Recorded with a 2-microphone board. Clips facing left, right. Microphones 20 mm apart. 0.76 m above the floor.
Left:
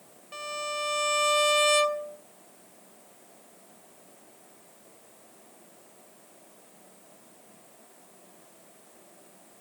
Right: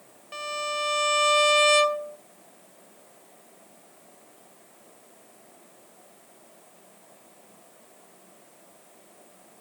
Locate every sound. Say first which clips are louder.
0.3 s a violin: right 3 dB; 10° right (ahead or behind), 0.6 m